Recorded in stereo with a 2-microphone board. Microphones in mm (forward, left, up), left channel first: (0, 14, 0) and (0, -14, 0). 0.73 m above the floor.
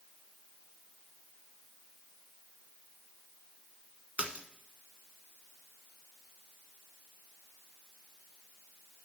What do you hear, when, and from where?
4.2 s a splash: 50° right (ahead or behind), 1.4 m